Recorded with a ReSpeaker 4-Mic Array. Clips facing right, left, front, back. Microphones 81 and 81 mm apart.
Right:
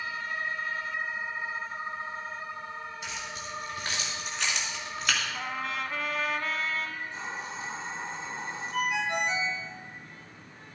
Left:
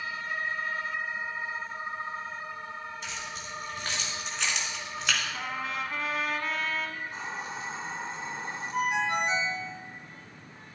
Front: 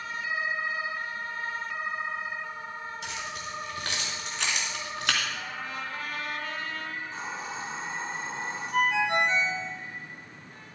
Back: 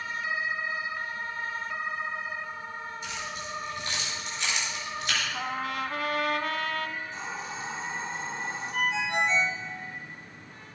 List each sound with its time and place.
3.0 s keys jangling: 5° right, 4 m; by 5.2 s straight ahead, 3 m
5.3 s a trumpet: straight behind, 0.9 m
7.0 s a hiss: 50° left, 4 m
8.7 s a ringtone: 30° left, 2.5 m